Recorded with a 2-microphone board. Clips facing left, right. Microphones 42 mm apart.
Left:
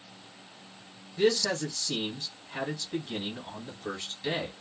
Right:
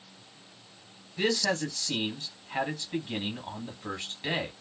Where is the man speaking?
30° right (ahead or behind), 1.5 m.